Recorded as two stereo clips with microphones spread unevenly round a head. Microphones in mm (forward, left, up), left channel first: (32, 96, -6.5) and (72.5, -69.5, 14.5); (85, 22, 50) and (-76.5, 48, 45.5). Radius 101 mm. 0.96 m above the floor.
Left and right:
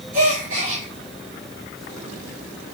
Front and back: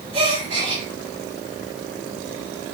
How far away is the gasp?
About 6.5 m.